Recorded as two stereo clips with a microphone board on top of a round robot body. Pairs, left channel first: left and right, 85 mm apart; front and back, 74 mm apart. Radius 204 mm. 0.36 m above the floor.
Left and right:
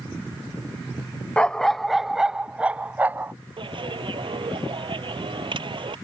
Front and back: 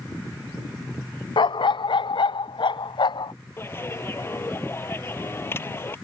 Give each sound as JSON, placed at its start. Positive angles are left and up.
{"t": 1.4, "sound": "a dog barking", "azimuth_deg": 10}
{"t": 3.6, "sound": "a clap", "azimuth_deg": -60}